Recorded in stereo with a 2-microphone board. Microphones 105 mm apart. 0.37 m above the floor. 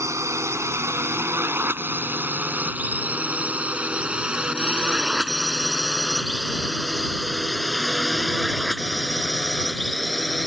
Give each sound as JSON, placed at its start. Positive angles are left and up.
{"t": 0.0, "sound": "a drone", "side_deg": -30}